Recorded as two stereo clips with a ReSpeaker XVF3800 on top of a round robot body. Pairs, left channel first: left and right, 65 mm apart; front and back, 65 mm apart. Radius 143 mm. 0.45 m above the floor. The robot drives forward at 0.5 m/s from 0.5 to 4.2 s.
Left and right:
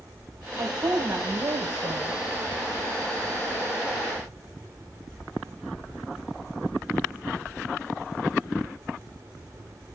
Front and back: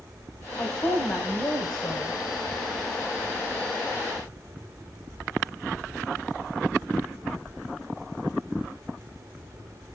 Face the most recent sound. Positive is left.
turn(degrees=-85)